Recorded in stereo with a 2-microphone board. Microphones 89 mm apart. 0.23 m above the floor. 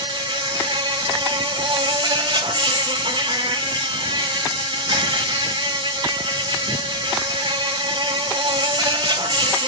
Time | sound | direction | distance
0.0 | an insect | 60° right (ahead or behind) | 1.3 m